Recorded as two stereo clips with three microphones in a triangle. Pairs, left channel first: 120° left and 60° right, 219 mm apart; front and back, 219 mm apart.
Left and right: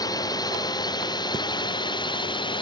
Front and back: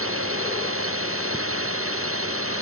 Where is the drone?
165° right; by 2.6 s 170° right.